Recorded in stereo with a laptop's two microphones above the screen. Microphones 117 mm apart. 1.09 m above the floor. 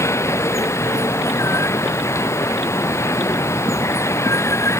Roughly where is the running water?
Left.